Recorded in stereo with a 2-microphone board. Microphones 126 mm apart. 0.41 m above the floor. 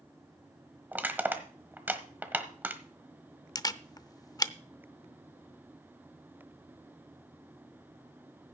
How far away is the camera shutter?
About 0.6 m.